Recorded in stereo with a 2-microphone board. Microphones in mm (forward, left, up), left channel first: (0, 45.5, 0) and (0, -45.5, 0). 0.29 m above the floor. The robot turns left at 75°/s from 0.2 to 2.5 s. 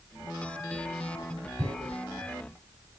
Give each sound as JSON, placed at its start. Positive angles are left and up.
{"t": 1.6, "sound": "tearing paper", "side_deg": -50, "distance_m": 2.0}